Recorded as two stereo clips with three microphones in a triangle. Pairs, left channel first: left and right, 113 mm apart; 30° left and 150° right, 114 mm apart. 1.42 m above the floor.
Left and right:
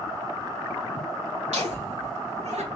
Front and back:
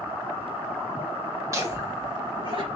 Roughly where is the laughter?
Right.